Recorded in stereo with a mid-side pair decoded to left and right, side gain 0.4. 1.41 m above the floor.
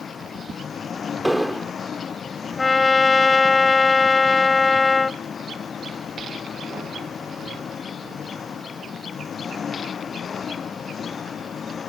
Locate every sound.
0.0 s an engine running: 55° left
1.2 s an explosion: straight ahead
2.6 s a trumpet: 35° left